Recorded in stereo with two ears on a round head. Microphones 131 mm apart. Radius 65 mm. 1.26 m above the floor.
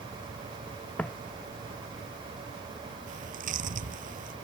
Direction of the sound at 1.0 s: 10° left (ahead or behind).